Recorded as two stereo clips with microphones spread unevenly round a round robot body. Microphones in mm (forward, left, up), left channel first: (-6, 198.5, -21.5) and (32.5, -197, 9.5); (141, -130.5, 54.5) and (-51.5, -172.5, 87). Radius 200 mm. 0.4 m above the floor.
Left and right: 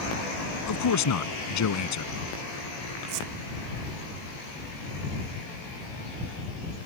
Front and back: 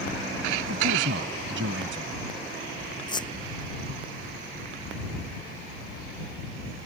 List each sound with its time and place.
0.7 s a man speaking: 145° left
3.1 s a squeak: 60° right